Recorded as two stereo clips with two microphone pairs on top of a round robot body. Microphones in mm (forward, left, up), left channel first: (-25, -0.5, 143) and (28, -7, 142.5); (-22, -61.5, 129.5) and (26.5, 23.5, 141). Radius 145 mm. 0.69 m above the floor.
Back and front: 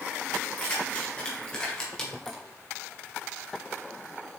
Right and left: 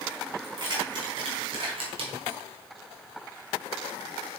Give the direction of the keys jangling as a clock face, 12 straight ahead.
8 o'clock.